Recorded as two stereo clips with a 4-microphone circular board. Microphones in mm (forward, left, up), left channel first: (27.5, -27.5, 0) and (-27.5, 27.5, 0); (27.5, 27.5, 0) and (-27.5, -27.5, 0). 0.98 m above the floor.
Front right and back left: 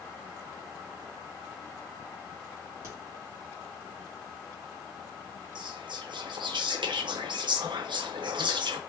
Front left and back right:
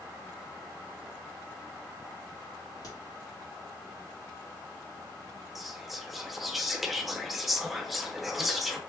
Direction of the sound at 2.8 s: 85° left.